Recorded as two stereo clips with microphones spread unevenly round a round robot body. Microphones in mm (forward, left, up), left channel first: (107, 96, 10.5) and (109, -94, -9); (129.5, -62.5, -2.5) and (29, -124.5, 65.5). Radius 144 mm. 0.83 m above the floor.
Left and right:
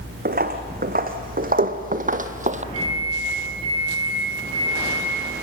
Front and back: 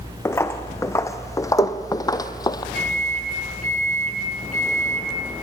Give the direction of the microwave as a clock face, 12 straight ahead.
4 o'clock.